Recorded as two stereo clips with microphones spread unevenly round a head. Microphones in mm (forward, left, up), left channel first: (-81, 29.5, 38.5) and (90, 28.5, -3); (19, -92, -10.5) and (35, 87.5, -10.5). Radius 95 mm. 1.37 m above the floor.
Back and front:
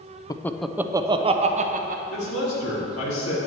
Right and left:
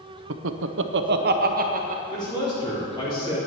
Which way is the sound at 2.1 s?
165° right.